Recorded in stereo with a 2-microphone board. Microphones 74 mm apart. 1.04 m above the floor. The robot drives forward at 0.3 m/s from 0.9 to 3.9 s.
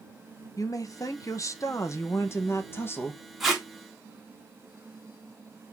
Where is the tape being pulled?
Centre (ahead or behind), 1.3 m.